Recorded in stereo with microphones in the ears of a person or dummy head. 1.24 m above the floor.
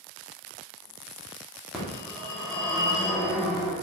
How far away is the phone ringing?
About 2 m.